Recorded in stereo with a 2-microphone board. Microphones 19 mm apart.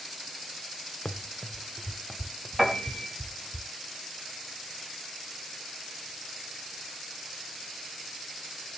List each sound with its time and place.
1.1 s running footsteps: 80° left, 0.6 m; by 3.6 s 10° left (ahead or behind), 2 m
2.6 s a piano: 10° right (ahead or behind), 5.5 m